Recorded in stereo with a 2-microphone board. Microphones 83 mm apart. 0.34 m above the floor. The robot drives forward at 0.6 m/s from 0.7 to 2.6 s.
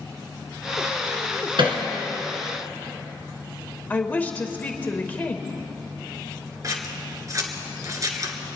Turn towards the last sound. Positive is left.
turn(degrees=-40)  # may be behind; listen again after turning